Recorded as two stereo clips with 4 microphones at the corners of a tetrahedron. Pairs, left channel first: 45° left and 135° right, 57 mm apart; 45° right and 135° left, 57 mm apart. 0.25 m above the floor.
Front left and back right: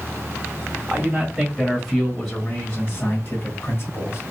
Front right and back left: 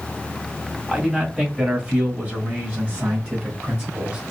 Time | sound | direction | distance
0.9 | a man speaking | 155° right | 1.7 m